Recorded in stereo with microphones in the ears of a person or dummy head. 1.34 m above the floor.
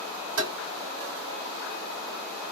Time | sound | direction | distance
0.4 | tapping | 75° right (ahead or behind) | 3 m